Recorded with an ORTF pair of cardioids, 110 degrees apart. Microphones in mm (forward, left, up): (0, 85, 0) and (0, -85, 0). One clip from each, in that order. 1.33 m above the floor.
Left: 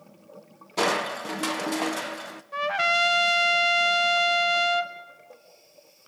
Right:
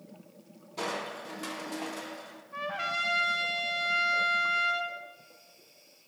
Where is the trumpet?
50° left, 0.8 m.